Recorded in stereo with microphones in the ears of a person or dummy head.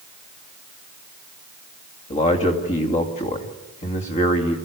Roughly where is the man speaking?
Left.